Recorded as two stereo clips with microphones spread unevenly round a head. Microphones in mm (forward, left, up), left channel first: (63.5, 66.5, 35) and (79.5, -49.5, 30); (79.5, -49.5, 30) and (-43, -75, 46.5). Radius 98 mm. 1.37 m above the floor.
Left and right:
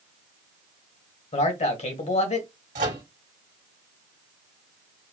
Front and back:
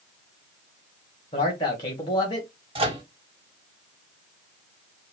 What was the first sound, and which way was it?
A man speaking, 70° left.